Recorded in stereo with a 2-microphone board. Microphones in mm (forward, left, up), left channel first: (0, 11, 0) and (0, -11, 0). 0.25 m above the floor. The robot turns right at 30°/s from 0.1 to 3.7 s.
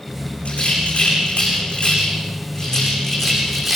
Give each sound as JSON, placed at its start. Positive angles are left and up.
{"t": 0.5, "sound": "a rattle", "side_deg": 80, "distance_m": 9.5}